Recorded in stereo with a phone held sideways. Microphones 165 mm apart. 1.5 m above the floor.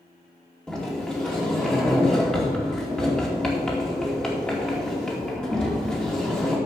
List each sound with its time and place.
0.7 s a sliding door: 5° left (ahead or behind), 2.5 m